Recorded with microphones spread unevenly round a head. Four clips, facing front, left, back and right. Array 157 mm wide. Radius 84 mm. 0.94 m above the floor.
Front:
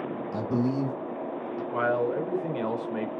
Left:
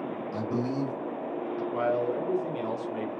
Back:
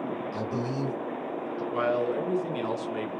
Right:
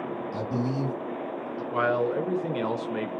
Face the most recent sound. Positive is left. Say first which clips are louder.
# right 3 dB, front 1 dB
turn(degrees=-90)